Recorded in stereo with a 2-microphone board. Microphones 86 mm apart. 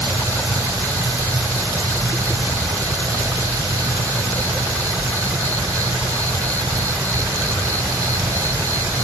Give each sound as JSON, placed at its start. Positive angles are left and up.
{"t": 0.0, "sound": "an insect", "side_deg": -40, "distance_m": 1.1}